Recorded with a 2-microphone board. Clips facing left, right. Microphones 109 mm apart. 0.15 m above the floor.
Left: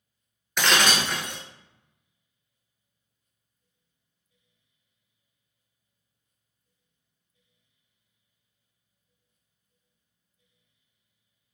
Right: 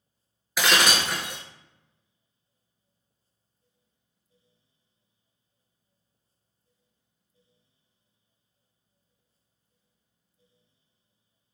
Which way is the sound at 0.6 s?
5° right (ahead or behind).